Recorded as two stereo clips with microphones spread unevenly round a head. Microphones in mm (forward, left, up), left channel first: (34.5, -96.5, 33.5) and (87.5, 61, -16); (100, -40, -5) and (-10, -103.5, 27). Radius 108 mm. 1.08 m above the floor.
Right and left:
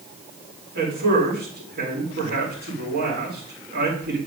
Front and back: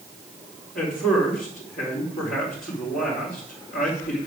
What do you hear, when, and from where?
0.8 s a man speaking: 55° left, 4 m